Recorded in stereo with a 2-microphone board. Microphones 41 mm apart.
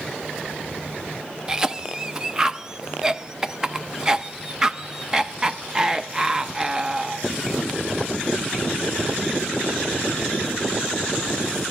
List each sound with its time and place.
1.5 s a cough: 20° right (ahead or behind), 0.6 m